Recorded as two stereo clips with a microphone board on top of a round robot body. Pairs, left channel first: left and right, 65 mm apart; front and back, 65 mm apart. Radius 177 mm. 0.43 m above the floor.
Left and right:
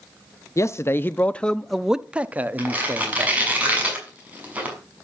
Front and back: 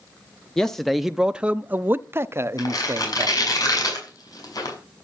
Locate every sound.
0.6 s a man speaking: 80° left, 1.0 m; by 3.4 s 135° right, 1.5 m
2.6 s tearing paper: 25° right, 6.5 m